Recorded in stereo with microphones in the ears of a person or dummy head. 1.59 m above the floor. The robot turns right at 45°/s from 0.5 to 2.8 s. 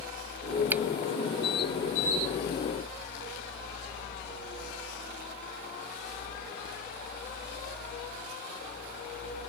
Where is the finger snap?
10° right (ahead or behind); by 0.8 s 5° right (ahead or behind).